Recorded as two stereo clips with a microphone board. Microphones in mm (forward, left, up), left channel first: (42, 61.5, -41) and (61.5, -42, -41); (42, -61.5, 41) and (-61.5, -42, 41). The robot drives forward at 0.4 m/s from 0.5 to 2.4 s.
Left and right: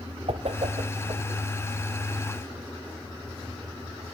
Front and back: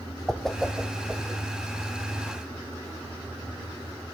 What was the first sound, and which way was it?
A whoosh, 100° right.